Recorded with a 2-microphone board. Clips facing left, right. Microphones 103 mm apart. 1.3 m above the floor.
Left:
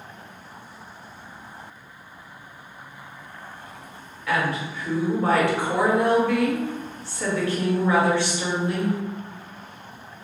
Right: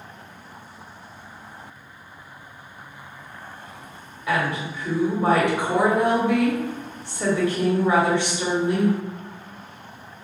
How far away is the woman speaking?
About 1.1 m.